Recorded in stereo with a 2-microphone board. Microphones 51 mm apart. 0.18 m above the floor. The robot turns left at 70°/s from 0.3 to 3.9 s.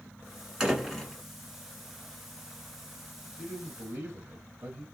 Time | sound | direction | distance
0.6 | a door slam | 165° right | 1.4 m
3.4 | a man speaking | 35° right | 2.5 m